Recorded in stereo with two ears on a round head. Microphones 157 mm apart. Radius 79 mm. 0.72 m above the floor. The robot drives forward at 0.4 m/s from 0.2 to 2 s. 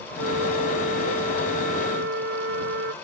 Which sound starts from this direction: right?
A flute, at 0.2 s.